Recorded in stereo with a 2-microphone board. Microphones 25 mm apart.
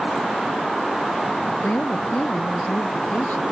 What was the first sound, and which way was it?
A woman speaking, 80° left.